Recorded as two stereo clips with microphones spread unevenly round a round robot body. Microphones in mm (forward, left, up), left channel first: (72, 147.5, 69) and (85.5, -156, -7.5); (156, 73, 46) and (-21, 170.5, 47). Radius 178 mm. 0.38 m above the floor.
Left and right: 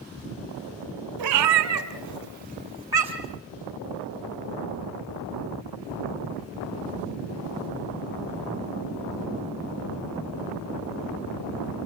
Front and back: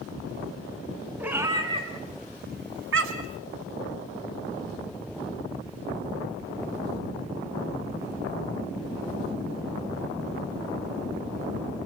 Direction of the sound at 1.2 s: 120° right.